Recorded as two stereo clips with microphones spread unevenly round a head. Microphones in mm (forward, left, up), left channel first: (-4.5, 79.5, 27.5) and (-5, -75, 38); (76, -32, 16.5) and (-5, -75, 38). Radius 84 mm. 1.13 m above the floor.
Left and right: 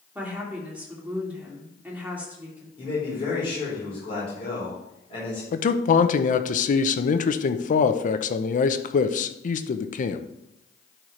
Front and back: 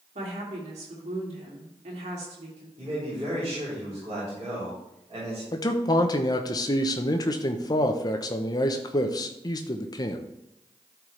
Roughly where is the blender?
No blender in this recording.